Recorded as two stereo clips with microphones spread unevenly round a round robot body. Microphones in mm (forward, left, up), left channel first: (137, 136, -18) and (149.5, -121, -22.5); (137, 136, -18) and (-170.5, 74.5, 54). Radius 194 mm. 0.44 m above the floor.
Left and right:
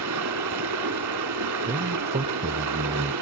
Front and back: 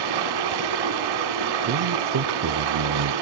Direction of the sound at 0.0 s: 135° right.